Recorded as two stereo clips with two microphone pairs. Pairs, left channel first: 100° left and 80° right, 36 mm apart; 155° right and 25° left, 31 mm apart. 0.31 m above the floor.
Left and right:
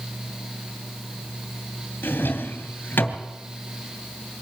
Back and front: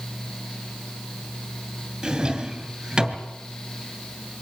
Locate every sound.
2.0 s a drawer: 90° left, 2.5 m